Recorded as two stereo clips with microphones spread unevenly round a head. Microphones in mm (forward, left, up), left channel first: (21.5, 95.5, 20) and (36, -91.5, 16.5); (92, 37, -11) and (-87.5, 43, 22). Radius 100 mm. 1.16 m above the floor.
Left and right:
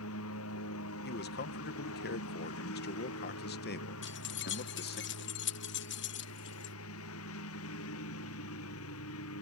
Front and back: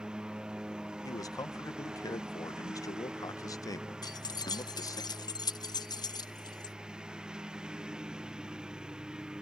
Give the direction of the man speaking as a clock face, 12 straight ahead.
10 o'clock.